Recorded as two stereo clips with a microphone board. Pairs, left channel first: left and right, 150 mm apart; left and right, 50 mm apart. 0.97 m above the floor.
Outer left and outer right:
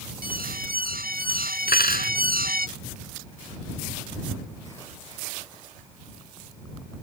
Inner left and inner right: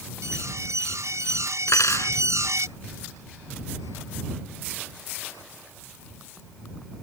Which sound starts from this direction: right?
An alarm, at 0.2 s.